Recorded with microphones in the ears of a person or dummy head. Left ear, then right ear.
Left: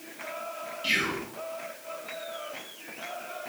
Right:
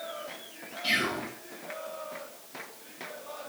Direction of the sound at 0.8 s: 5° right (ahead or behind).